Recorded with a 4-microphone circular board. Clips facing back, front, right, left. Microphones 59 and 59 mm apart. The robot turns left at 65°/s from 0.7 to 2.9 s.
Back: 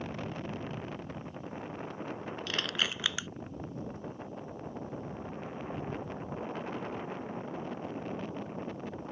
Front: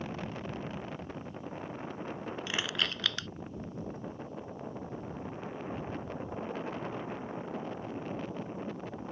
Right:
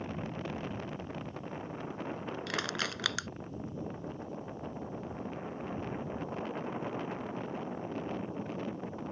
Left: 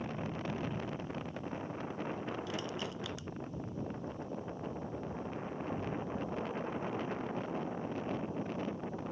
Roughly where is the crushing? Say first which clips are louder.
Even, right 4 dB; right.